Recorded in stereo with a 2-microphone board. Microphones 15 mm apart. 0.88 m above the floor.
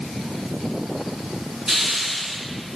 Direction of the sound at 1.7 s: 50° right (ahead or behind).